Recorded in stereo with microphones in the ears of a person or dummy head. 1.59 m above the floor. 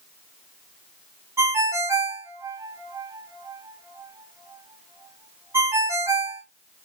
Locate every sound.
1.4 s a ringtone: 15° right (ahead or behind), 0.9 m